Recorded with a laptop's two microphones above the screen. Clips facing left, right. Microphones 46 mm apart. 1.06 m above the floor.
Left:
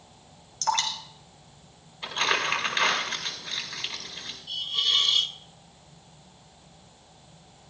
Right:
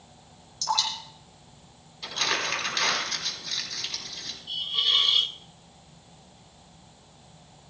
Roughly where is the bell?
I don't hear a bell.